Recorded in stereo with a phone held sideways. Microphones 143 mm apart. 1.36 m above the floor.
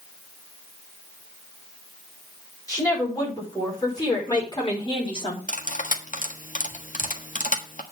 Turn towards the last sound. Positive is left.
turn(degrees=65)  # may be behind; listen again after turning